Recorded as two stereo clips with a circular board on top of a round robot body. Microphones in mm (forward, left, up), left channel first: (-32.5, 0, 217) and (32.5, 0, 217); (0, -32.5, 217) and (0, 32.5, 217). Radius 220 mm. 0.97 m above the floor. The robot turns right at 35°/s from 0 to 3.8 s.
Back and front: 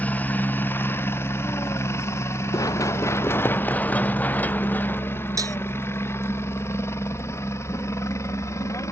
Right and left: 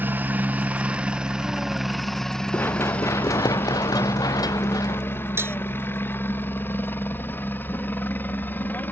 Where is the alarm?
No alarm in this recording.